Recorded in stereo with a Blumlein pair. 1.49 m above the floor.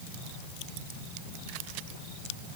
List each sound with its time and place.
Only background noise.